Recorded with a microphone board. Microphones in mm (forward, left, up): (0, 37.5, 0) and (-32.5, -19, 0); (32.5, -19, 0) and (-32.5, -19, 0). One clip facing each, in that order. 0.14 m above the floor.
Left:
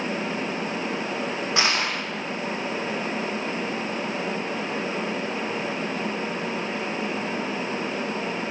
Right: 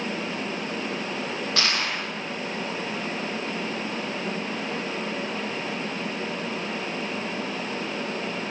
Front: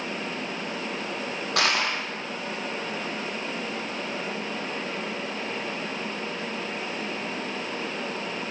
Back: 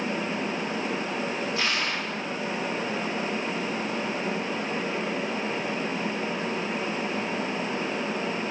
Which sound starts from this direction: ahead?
Crushing, at 1.6 s.